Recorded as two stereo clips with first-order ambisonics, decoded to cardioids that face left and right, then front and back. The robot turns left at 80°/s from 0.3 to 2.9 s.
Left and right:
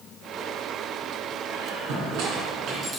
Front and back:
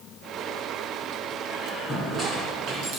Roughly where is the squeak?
Ahead right.